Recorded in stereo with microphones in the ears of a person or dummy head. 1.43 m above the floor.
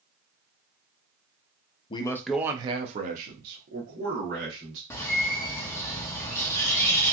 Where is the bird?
15° left (ahead or behind), 0.6 m.